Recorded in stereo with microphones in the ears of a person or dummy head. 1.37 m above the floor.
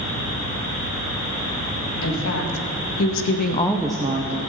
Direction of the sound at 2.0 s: 85° left.